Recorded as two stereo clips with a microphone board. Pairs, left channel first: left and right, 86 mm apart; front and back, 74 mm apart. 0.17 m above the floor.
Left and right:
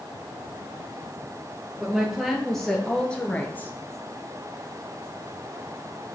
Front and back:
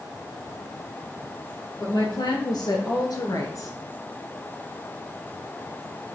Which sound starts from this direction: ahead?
A woman speaking, at 1.8 s.